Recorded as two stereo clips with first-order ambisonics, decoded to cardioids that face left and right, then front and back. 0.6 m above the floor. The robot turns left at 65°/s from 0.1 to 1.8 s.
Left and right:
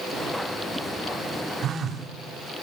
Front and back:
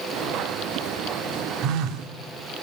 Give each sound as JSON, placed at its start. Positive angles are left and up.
{"t": 1.6, "sound": "a phone buzzing", "azimuth_deg": -145, "distance_m": 0.9}